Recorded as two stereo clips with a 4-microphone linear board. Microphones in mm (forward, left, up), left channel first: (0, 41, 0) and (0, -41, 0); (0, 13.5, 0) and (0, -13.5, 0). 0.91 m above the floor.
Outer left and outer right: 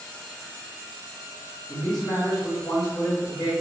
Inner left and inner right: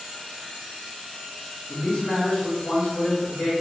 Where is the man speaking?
45° left (ahead or behind), 1.1 m.